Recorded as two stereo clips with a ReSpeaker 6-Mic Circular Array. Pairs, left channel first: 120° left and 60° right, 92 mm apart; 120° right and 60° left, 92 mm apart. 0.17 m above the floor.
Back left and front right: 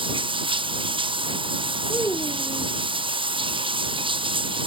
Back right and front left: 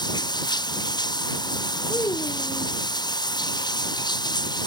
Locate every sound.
0.0 s running water: 80° right
1.9 s a child speaking: straight behind